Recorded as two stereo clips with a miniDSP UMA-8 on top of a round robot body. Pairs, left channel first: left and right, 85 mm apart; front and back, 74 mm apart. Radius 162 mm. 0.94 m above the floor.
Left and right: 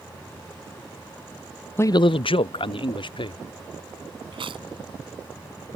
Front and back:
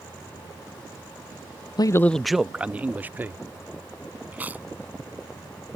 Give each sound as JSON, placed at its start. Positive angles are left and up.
{"t": 1.8, "sound": "a man speaking", "azimuth_deg": 25}
{"t": 4.3, "sound": "chewing", "azimuth_deg": -110}